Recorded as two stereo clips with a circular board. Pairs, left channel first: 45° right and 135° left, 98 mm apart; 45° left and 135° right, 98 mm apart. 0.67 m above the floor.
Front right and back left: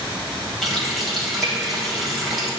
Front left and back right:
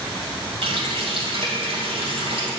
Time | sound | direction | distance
0.6 | a running tap | 135° right | 2.5 m